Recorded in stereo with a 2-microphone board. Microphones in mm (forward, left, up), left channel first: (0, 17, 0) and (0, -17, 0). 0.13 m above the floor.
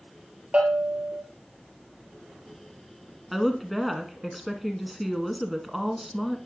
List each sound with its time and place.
0.5 s a bell: 35° right (ahead or behind), 1.6 m
3.3 s a woman speaking: centre (ahead or behind), 1.1 m